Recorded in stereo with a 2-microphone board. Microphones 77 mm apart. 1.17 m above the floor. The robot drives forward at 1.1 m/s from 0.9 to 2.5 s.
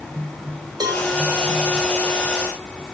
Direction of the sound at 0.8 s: 65° right (ahead or behind).